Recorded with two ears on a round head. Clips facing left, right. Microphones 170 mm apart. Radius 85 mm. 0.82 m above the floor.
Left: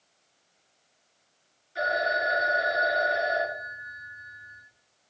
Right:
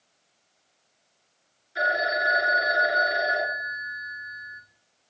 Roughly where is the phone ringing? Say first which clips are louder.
Right 1 dB; centre.